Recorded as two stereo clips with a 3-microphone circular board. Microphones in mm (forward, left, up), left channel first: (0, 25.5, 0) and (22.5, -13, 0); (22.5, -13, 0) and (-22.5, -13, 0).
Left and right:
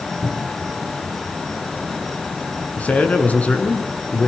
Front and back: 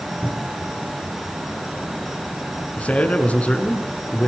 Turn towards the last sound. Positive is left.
turn(degrees=60)